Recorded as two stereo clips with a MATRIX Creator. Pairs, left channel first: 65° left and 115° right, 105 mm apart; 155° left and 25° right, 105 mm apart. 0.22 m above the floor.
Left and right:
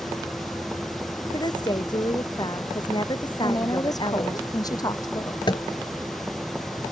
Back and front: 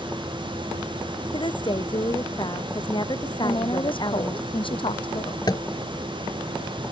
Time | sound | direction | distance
1.3 | a woman speaking | 115° left | ?
3.4 | a woman speaking | 120° left | ?
5.5 | tapping | 110° left | ?